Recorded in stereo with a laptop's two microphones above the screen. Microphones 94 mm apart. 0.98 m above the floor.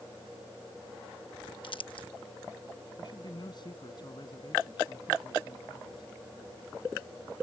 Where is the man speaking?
50° left (ahead or behind).